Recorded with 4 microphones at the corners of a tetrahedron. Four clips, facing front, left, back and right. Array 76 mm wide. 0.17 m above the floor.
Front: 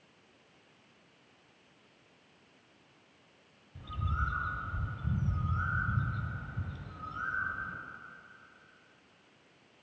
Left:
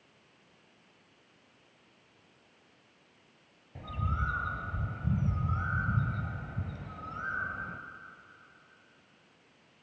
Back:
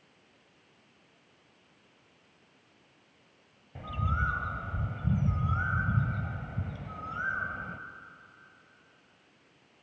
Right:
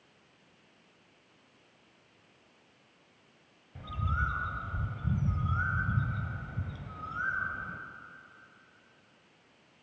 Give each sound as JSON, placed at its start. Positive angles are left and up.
{"t": 3.8, "sound": "a bird", "azimuth_deg": 150, "distance_m": 1.3}